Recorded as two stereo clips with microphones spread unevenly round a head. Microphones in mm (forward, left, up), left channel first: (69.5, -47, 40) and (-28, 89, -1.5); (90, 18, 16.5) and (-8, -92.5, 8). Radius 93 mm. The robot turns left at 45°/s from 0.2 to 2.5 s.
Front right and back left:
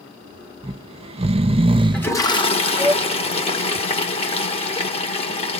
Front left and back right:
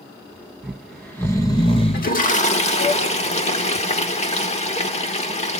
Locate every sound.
0.6 s snoring: 150° left, 0.9 m; by 2.9 s 65° left, 0.9 m
1.9 s a toilet flushing: 25° left, 1.4 m; by 5.6 s straight ahead, 1.4 m